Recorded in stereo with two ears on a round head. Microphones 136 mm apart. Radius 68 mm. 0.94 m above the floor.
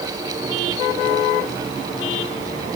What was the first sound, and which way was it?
Only background noise.